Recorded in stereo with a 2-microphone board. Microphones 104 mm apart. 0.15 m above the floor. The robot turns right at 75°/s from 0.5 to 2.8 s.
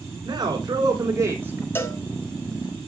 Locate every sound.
0.2 s a man speaking: 105° right, 1.8 m; by 1.6 s 15° right, 1.8 m
1.8 s a cowbell: 20° left (ahead or behind), 0.6 m; by 2.0 s 30° left (ahead or behind), 0.6 m